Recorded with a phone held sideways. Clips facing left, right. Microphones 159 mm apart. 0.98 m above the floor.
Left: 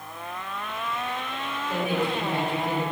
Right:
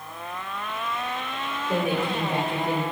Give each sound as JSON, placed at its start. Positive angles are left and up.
{"t": 1.7, "sound": "a woman speaking", "side_deg": -35, "distance_m": 3.5}